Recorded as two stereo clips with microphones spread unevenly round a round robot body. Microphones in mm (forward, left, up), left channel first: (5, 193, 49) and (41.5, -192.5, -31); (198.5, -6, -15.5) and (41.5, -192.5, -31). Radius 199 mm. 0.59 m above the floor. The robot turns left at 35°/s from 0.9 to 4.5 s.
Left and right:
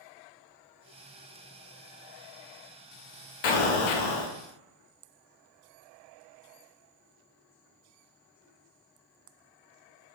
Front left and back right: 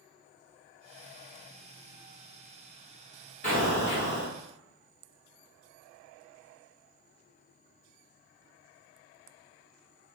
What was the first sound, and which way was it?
An explosion, 115° left.